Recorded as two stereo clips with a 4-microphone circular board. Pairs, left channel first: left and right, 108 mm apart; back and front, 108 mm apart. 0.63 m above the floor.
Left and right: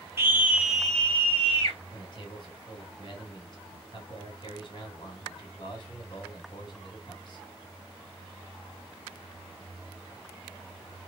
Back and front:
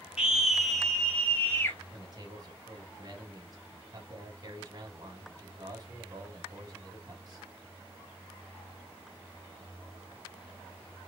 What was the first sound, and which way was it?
A scream, 70° right.